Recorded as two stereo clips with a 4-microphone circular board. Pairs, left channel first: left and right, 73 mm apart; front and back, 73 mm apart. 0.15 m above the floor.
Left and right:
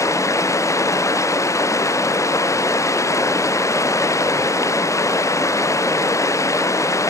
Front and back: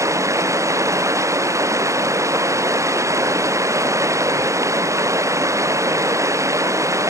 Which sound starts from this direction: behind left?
Running water, at 0.0 s.